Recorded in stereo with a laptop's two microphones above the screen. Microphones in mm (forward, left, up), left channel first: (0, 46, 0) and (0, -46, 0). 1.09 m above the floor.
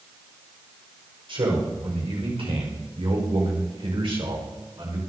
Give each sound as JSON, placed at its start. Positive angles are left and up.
{"t": 1.3, "sound": "a man speaking", "side_deg": -75, "distance_m": 5.0}